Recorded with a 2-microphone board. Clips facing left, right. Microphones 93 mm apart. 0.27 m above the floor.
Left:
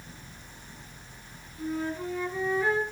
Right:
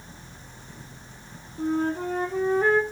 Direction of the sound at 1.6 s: 50° right (ahead or behind).